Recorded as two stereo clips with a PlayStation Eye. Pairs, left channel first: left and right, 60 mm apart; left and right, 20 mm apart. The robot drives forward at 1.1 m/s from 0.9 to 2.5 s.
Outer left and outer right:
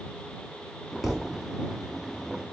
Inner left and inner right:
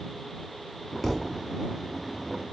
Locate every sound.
1.0 s a thud: 5° right (ahead or behind), 0.9 m